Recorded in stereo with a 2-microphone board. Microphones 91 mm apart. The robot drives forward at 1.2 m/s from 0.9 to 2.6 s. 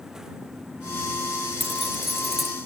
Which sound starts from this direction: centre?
Keys jangling, at 1.6 s.